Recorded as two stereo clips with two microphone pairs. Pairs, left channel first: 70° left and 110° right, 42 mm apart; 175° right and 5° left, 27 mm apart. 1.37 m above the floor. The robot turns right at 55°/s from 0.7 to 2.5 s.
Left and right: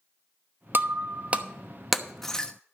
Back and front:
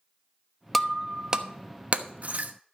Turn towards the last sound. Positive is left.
turn(degrees=5)